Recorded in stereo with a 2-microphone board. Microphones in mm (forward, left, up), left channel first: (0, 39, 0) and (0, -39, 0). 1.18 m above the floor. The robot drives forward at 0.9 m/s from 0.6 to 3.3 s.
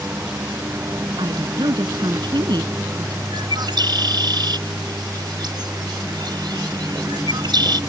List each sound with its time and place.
0.0 s a lawn mower: 30° right (ahead or behind); by 7.9 s 35° right (ahead or behind)
1.2 s a woman speaking: 75° right (ahead or behind); by 3.2 s 65° right (ahead or behind)
3.3 s a bird: 70° right (ahead or behind)